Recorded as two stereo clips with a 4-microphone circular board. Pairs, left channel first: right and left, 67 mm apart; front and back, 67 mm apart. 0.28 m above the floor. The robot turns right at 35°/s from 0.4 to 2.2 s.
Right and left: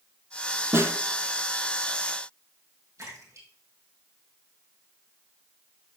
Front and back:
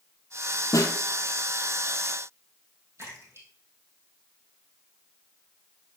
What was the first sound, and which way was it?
A snare drum, 35° left.